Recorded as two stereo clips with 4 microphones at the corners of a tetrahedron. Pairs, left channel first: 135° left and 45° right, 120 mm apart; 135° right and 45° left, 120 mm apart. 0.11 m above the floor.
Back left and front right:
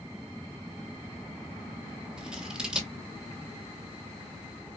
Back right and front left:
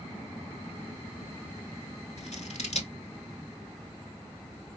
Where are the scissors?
130° right, 0.7 m.